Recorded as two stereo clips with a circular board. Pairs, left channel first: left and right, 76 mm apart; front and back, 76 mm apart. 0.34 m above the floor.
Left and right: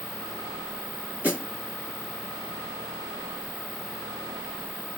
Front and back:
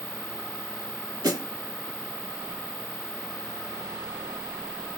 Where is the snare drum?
155° right, 2.5 m.